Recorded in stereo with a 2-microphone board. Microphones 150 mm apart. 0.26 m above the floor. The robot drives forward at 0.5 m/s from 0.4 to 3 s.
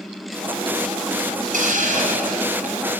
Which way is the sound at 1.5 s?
65° right (ahead or behind).